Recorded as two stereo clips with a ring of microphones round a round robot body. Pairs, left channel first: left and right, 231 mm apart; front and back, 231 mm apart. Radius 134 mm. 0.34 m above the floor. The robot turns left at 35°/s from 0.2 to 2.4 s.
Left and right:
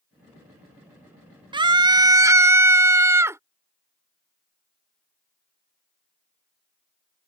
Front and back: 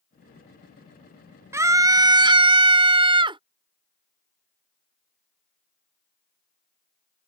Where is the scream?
120° right; by 3.4 s 150° right.